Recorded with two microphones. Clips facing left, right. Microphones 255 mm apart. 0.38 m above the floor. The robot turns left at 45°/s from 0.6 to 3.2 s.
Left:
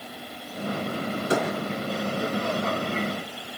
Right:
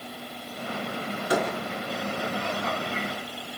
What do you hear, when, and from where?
1.3 s a door slam: 25° left (ahead or behind), 8.5 m; by 1.5 s 35° left (ahead or behind), 8.5 m